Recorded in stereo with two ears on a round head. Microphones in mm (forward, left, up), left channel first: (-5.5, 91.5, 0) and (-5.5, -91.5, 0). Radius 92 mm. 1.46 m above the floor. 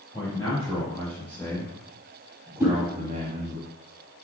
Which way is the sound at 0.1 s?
20° left (ahead or behind).